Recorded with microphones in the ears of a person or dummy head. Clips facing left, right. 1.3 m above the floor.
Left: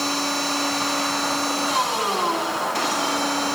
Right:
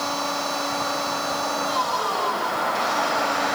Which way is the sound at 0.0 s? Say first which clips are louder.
Left 2 dB; 45° left (ahead or behind).